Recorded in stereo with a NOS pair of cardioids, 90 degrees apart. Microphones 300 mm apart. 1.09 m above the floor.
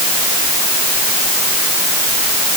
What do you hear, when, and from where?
Only background noise.